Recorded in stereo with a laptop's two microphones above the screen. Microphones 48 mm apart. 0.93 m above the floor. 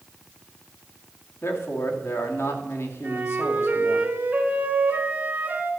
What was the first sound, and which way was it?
A man speaking, 65° left (ahead or behind).